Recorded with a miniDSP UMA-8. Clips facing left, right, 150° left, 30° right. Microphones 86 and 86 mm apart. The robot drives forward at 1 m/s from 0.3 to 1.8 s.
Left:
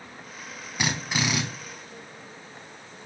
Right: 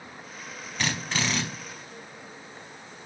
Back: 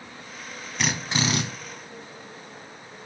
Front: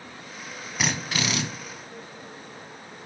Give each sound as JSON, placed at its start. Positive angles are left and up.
{"t": 0.8, "sound": "a drill", "azimuth_deg": 40, "distance_m": 0.5}